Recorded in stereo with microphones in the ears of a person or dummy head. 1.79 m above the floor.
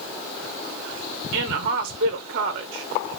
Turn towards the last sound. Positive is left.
turn(degrees=-45)  # may be behind; listen again after turning